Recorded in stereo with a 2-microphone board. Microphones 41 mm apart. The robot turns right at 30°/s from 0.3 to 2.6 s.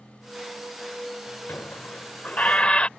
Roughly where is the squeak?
Behind left.